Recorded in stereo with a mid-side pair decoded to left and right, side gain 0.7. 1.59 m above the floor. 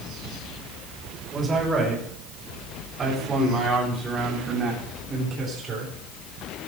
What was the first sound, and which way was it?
A man speaking, 25° right.